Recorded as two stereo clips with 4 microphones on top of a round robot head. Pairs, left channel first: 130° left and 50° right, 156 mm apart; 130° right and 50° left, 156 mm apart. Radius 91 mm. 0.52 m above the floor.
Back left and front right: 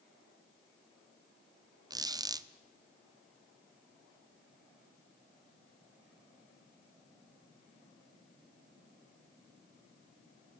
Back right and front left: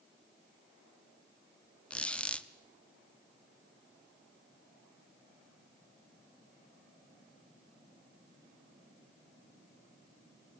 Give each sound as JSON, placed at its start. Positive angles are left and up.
{"t": 1.9, "sound": "a squeak", "azimuth_deg": -55, "distance_m": 0.7}